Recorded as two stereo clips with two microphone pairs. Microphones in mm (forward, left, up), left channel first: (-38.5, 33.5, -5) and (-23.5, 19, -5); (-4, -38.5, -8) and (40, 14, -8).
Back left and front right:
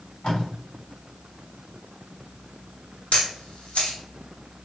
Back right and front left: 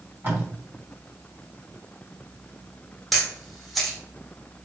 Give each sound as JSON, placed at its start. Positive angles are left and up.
{"t": 0.2, "sound": "tape being pulled", "azimuth_deg": 110, "distance_m": 1.9}
{"t": 3.1, "sound": "a camera shutter", "azimuth_deg": 140, "distance_m": 0.9}